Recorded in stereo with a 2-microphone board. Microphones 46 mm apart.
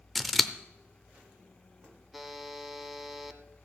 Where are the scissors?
Centre (ahead or behind), 0.6 m.